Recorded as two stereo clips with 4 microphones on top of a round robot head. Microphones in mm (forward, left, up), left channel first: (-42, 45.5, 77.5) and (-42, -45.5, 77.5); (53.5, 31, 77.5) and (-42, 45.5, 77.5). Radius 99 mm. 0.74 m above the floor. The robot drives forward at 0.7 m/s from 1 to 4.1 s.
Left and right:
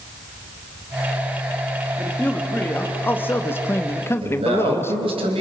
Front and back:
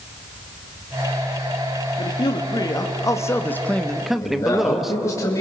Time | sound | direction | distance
2.0 | a man speaking | 15° left | 1.8 m
4.2 | a man speaking | 70° right | 4 m